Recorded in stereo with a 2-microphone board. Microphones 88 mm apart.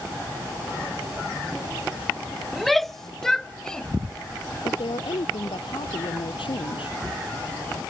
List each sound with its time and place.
2.5 s a shout: centre (ahead or behind); by 3.9 s 10° left (ahead or behind)
4.6 s a woman speaking: 85° left